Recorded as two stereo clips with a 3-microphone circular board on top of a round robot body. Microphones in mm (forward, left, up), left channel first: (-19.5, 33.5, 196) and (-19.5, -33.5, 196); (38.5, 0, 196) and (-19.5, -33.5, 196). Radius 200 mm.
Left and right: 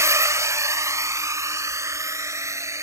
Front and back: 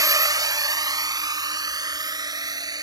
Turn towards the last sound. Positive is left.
turn(degrees=-135)